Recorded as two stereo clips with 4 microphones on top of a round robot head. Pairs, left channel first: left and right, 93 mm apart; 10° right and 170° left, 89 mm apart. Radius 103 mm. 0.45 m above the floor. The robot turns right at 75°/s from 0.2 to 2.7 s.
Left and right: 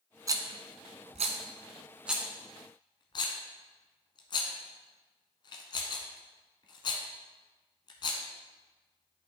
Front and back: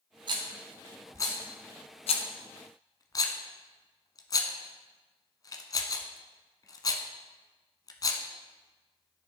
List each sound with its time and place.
0.3 s a rattle: 145° right, 0.9 m; by 9.3 s 40° left, 0.9 m